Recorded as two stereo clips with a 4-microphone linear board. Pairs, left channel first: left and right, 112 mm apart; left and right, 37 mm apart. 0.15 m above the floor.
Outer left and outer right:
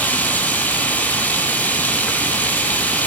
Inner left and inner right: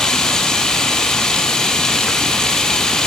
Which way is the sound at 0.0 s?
15° left (ahead or behind).